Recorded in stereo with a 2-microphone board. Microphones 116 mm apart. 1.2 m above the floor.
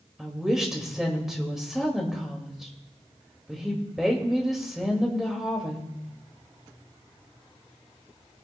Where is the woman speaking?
5° right (ahead or behind), 2 m.